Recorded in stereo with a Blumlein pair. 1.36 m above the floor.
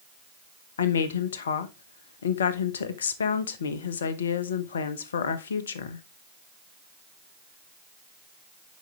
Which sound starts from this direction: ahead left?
A woman speaking, at 0.8 s.